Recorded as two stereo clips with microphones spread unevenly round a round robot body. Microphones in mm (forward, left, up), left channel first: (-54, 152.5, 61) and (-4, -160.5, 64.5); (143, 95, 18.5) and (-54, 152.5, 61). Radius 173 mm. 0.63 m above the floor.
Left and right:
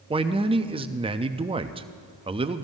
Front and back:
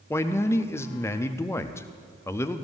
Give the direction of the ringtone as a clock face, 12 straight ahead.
I don't hear a ringtone.